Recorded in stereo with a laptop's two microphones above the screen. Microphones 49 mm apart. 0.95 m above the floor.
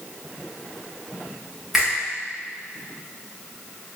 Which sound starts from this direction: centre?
A finger snap, at 1.7 s.